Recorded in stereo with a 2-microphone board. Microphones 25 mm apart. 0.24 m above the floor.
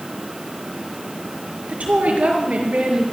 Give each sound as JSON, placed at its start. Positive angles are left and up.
{"t": 1.7, "sound": "a woman speaking", "side_deg": -65, "distance_m": 4.5}